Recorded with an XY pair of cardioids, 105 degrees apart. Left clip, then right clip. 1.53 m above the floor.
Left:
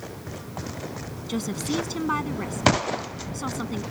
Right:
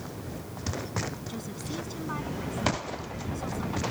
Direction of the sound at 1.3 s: 60° left.